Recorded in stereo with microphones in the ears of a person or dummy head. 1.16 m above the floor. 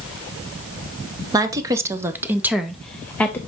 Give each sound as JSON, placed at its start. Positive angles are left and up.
{"t": 1.3, "sound": "a woman speaking", "side_deg": -20, "distance_m": 1.0}